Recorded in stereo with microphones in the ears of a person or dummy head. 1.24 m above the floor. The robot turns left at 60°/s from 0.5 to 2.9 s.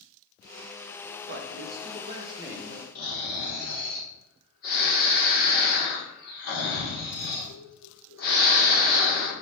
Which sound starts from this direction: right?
A man speaking, at 1.3 s.